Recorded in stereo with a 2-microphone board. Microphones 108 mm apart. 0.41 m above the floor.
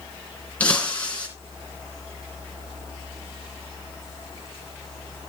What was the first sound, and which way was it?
Breaking glass, 15° left (ahead or behind).